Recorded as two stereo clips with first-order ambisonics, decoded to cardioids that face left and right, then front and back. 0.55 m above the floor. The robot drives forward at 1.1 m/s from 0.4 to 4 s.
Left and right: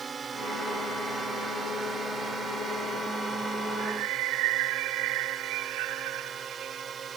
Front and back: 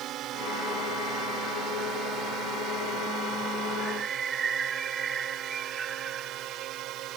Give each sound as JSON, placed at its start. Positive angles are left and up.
{"t": 0.0, "sound": "a drone", "azimuth_deg": -155}
{"t": 3.8, "sound": "a bird", "azimuth_deg": -105}